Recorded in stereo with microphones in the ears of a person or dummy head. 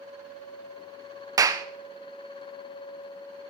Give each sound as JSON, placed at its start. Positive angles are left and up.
{"t": 1.4, "sound": "a clap", "side_deg": -15, "distance_m": 0.8}